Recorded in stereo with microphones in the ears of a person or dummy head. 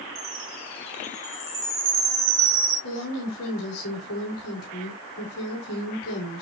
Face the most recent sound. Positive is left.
turn(degrees=75)  # may be behind; listen again after turning